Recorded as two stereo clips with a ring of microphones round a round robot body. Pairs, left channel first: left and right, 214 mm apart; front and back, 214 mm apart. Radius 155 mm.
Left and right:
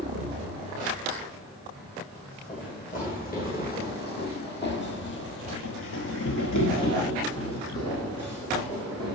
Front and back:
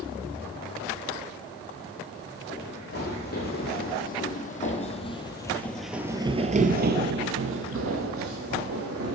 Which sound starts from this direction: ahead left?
Running footsteps, at 2.5 s.